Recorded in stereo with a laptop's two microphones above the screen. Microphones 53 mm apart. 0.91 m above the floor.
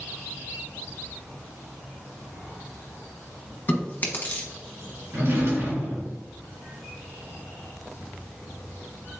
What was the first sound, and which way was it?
Chewing, 35° left (ahead or behind).